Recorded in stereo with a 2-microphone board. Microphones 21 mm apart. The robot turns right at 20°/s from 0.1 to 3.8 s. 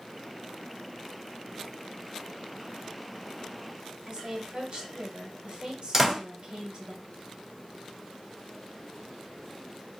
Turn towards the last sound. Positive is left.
turn(degrees=-20)  # may be behind; listen again after turning